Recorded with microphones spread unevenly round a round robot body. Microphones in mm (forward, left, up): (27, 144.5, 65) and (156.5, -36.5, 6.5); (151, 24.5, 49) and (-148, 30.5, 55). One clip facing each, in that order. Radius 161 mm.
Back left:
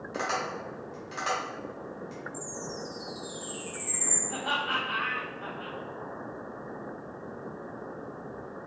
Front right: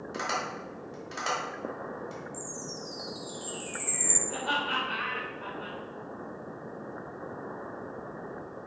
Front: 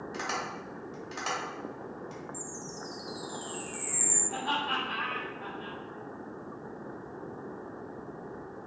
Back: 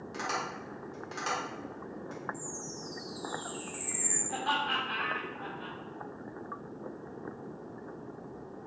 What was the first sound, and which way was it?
Tapping, 85° right.